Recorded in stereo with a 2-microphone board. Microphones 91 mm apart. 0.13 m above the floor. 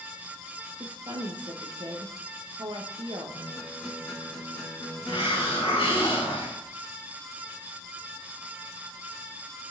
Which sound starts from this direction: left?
A hiss, at 5.1 s.